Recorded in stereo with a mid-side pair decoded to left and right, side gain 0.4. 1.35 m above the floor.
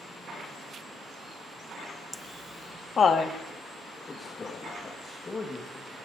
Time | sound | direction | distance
2.1 | laughter | 25° left | 1.1 m
4.1 | a man speaking | 40° left | 1.9 m